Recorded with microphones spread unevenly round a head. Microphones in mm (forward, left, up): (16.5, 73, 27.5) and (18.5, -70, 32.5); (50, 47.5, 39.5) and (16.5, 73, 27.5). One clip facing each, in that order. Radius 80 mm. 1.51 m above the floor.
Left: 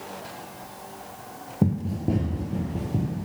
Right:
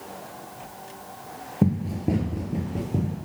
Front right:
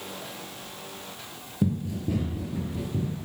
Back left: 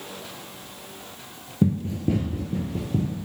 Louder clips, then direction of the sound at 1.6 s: Right 1 dB, back left 5 dB; 145° right.